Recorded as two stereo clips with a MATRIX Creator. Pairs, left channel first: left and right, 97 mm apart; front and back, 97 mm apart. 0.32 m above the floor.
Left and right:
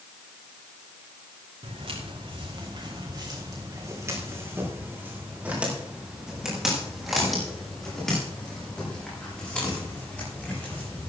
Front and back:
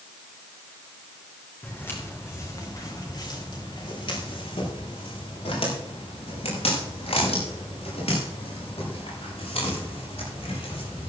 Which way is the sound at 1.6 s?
70° right.